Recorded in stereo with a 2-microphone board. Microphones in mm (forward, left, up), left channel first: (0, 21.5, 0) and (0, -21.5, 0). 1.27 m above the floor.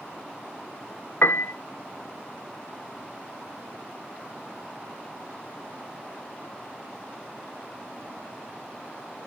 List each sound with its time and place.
1.2 s a piano: 45° left (ahead or behind), 0.6 m